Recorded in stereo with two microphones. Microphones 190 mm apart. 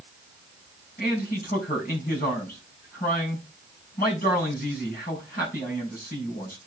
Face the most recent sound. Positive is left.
turn(degrees=50)  # may be behind; listen again after turning